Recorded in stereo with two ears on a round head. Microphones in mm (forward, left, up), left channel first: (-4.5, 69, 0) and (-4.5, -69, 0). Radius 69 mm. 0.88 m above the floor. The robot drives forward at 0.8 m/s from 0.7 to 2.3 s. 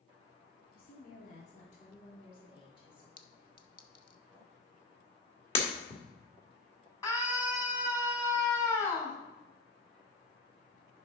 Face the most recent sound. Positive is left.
turn(degrees=20)  # may be behind; listen again after turning